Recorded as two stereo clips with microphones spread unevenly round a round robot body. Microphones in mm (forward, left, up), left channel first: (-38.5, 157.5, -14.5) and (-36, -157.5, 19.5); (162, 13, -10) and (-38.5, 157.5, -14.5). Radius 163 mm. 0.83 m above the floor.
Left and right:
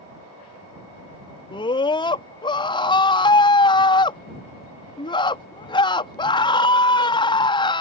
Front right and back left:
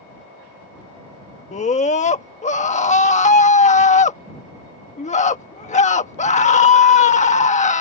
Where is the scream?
20° left.